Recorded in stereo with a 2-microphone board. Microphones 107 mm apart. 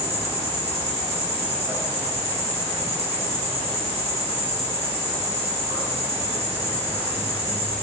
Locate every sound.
0.0 s an insect: 80° right, 1.2 m